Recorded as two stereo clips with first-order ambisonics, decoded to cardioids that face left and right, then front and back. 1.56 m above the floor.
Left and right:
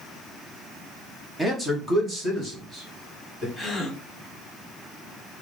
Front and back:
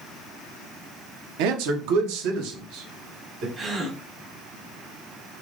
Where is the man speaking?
175° right, 0.7 m; by 3.5 s 160° right, 2 m.